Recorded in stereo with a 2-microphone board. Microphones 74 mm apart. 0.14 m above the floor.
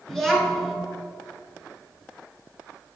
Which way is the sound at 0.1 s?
5° left (ahead or behind).